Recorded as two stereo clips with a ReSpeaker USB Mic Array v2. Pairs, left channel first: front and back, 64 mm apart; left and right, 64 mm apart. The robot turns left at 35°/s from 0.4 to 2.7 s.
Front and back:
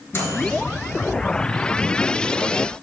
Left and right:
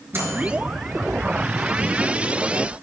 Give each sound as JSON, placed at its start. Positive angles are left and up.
{"t": 0.1, "sound": "a microwave", "azimuth_deg": -40, "distance_m": 1.9}